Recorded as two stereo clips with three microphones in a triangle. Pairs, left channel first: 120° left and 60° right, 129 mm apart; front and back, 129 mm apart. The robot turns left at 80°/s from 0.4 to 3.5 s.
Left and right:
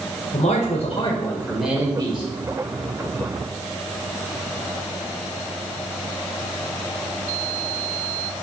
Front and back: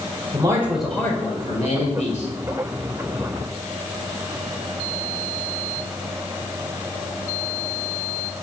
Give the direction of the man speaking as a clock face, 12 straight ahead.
8 o'clock.